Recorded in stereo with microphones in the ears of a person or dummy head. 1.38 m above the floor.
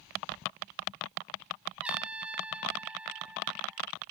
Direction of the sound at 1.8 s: 10° right (ahead or behind).